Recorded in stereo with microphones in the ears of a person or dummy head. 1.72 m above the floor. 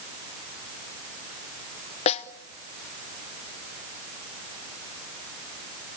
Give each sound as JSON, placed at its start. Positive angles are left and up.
{"t": 2.1, "sound": "a snare drum", "side_deg": 40, "distance_m": 1.0}